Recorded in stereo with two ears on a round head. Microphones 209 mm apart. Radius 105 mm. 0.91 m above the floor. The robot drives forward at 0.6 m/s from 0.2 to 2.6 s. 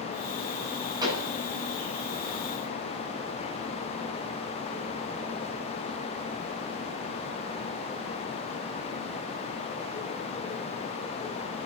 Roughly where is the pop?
Centre.